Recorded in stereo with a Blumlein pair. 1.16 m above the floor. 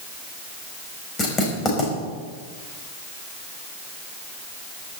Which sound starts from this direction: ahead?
Writing, at 1.2 s.